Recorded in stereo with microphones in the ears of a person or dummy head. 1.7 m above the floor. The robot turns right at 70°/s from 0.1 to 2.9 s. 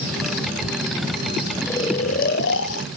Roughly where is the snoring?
Ahead.